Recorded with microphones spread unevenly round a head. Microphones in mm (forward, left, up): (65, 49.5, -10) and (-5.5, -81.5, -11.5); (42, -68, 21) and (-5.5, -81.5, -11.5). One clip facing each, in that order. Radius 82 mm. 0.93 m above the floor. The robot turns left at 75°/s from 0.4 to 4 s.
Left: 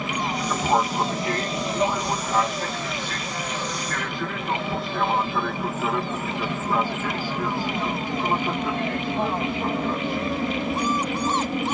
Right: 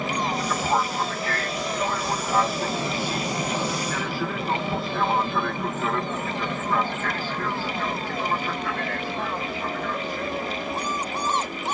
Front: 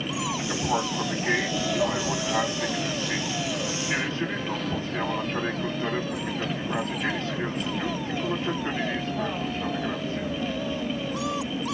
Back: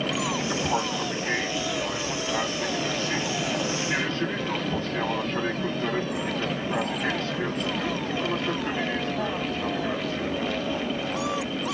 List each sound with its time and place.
0.0 s an aircraft: 145° left; by 11.8 s 105° left